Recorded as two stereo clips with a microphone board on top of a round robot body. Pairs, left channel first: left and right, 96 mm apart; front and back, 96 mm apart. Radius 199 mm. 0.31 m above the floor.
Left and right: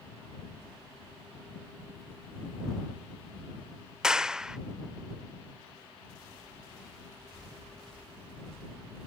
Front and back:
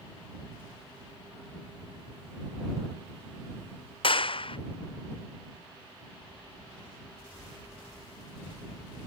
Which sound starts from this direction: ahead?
A clap, at 4.0 s.